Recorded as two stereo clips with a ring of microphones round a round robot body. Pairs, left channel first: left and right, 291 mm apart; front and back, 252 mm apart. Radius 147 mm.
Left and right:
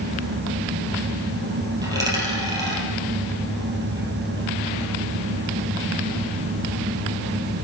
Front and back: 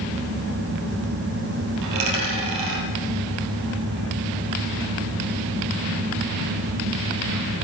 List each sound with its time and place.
1.8 s a dropped coin: 170° right, 3 m